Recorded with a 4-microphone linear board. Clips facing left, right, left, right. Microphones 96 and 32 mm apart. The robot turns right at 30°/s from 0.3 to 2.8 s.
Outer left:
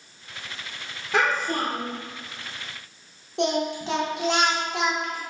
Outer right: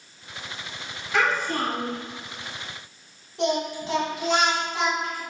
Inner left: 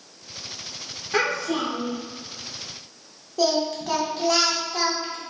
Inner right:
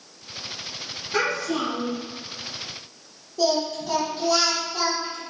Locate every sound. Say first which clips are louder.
1.1 s a child speaking: even, inner left 1 dB; 80° left, 1.3 m; by 2.0 s 65° left (ahead or behind), 1.3 m
3.4 s singing: outer left 1 dB, even; 85° left, 0.8 m